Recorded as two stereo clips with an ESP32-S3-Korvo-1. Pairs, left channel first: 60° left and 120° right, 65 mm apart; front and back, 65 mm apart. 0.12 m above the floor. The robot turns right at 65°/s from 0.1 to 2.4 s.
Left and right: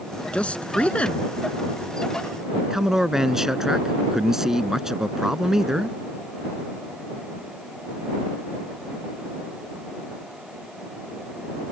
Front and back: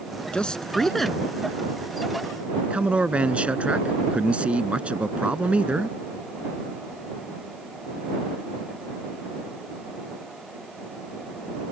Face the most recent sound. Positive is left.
turn(degrees=170)